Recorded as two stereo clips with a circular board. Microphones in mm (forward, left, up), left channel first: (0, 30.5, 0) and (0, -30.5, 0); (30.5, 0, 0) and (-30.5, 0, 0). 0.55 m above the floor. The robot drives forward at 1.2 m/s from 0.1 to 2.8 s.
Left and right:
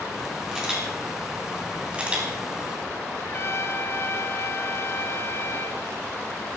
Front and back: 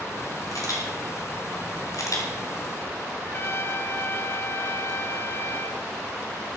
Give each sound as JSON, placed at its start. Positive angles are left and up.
{"t": 0.5, "sound": "a camera shutter", "azimuth_deg": -15, "distance_m": 5.0}
{"t": 3.2, "sound": "a trumpet", "azimuth_deg": 45, "distance_m": 0.8}